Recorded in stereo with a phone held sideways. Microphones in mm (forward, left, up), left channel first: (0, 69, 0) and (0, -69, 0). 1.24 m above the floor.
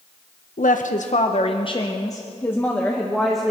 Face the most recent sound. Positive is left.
turn(degrees=0)  # may be behind; listen again after turning